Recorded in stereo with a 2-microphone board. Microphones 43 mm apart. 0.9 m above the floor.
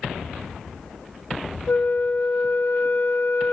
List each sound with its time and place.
1.7 s a flute: 55° left (ahead or behind), 0.8 m